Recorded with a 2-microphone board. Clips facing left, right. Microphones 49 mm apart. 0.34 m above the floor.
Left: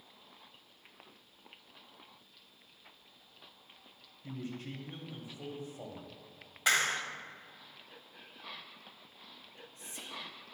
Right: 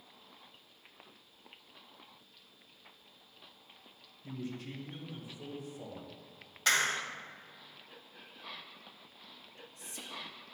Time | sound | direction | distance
4.2 | a man speaking | 45° left (ahead or behind) | 1.7 m
6.7 | a clap | 15° left (ahead or behind) | 1.1 m
9.4 | whispering | 30° left (ahead or behind) | 1.0 m